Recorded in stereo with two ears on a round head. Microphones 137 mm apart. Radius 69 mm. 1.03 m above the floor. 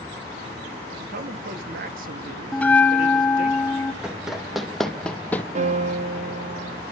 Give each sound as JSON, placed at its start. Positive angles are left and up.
{"t": 1.0, "sound": "a man speaking", "side_deg": -60, "distance_m": 1.8}
{"t": 2.5, "sound": "a bell", "side_deg": 10, "distance_m": 1.1}
{"t": 4.0, "sound": "running footsteps", "side_deg": -5, "distance_m": 3.0}
{"t": 5.5, "sound": "a piano", "side_deg": -45, "distance_m": 1.2}